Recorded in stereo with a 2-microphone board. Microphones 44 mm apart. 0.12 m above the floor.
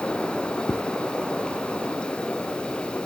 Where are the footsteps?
80° left, 1.1 m.